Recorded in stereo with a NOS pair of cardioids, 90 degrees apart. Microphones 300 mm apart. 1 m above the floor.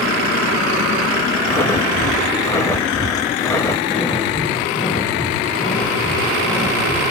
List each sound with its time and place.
1.5 s breathing: 10° left, 1.1 m
3.9 s breathing: 25° left, 8 m